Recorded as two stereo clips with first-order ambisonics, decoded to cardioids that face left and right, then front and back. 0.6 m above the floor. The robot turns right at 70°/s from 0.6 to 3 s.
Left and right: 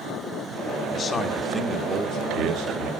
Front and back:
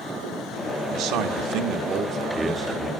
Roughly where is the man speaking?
Behind left.